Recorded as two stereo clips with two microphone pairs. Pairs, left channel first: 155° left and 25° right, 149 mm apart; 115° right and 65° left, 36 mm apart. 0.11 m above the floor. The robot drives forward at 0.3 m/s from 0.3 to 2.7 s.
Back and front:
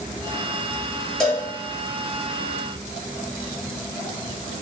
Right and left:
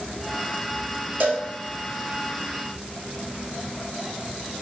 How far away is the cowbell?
About 0.9 m.